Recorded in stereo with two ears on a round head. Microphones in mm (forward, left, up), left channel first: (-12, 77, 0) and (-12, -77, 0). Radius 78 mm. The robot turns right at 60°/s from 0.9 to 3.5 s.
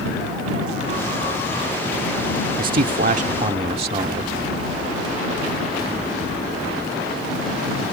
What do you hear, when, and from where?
2.6 s a man speaking: 100° right; by 4.3 s 45° right